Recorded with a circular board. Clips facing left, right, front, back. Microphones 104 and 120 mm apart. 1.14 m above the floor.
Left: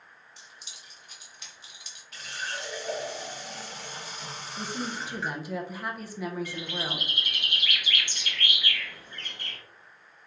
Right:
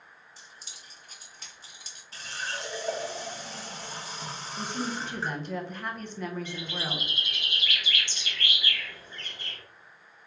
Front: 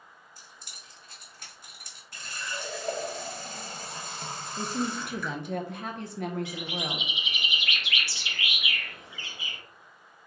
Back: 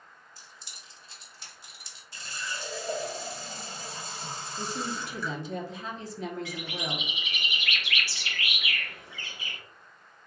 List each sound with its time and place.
0.4 s keys jangling: 40° right, 1.3 m
2.1 s a running tap: 30° right, 1.2 m
4.6 s a woman speaking: 10° left, 0.9 m
6.5 s a bird: 65° left, 2 m